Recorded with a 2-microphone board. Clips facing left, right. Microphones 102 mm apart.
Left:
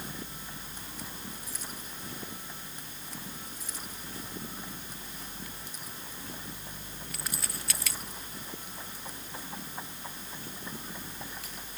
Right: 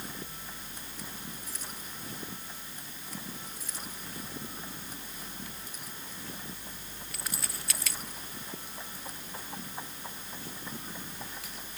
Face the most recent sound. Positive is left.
No sound to turn to.